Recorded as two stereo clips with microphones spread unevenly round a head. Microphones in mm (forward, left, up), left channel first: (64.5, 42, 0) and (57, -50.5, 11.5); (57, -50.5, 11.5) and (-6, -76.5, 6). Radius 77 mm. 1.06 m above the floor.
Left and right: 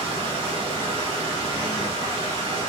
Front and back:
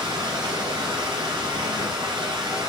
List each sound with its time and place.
0.0 s running water: 160° right, 3 m